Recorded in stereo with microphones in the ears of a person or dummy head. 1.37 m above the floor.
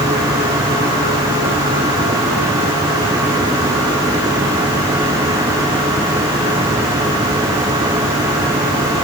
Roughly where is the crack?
I don't hear a crack.